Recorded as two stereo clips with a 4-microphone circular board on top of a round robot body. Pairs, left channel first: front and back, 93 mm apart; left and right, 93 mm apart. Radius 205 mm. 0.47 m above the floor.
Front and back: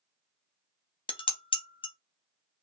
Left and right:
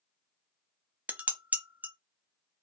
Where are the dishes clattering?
20° right, 0.8 m.